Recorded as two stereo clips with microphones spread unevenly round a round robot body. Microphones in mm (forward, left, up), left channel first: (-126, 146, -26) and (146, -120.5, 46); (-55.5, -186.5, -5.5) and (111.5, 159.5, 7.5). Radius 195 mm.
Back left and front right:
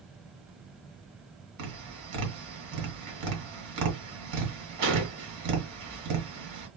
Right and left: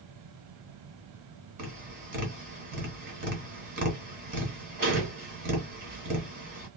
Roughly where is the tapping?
Ahead.